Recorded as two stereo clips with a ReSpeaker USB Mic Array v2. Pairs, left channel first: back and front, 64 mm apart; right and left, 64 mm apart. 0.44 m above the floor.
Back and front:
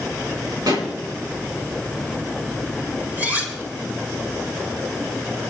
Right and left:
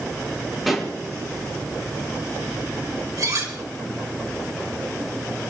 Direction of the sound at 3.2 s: 65° left.